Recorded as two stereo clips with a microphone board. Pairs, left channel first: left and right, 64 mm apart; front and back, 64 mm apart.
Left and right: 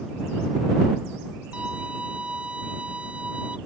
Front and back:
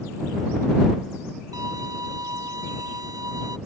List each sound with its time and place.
1.5 s a violin: 160° right